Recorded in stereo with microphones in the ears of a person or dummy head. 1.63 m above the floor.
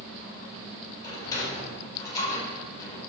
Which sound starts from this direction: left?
A sliding door, at 1.0 s.